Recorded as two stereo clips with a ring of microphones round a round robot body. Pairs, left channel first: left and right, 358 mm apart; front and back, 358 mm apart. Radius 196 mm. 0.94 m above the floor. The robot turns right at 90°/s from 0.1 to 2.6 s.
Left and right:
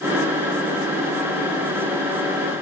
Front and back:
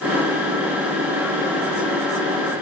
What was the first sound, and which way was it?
Only background noise.